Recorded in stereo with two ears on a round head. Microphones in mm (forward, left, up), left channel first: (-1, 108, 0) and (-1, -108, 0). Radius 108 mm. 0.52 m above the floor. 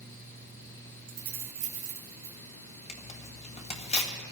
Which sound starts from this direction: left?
Tearing paper, at 2.9 s.